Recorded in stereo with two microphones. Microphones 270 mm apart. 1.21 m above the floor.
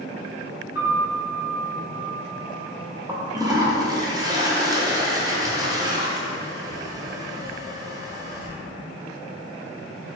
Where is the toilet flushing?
15° right (ahead or behind), 0.5 m.